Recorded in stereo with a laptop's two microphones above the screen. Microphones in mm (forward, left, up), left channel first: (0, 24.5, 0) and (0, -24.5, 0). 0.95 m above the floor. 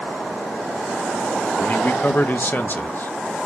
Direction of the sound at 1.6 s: 40° left (ahead or behind).